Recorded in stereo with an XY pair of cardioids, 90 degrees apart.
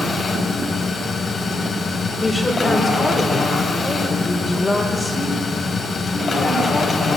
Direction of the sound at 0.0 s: 50° left.